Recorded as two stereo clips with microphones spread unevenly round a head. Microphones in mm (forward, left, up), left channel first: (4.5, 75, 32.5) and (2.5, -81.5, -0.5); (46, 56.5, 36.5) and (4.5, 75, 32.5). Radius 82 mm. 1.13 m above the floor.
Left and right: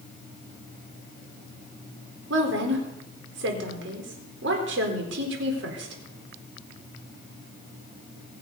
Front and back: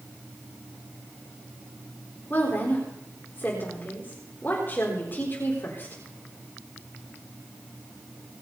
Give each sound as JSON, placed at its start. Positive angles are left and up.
{"t": 2.3, "sound": "a woman speaking", "azimuth_deg": -90, "distance_m": 4.0}